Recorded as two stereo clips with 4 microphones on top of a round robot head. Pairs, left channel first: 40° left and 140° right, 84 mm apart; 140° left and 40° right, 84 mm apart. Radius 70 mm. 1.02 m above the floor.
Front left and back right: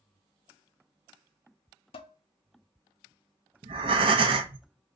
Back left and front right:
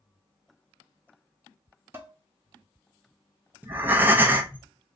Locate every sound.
1.9 s dishes clattering: 25° left, 0.8 m
3.6 s breathing: 110° right, 0.6 m